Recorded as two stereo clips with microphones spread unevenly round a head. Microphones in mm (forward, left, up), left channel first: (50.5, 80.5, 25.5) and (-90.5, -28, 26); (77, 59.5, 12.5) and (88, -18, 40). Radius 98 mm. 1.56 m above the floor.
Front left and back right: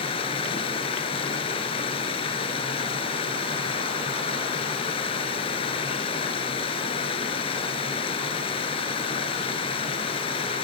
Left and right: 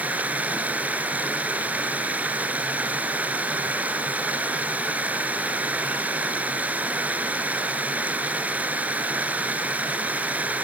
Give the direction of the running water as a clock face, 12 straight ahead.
1 o'clock.